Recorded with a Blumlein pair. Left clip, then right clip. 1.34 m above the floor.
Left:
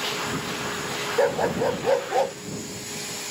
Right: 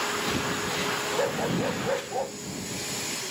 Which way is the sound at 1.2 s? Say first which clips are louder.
Left 10 dB; 20° left.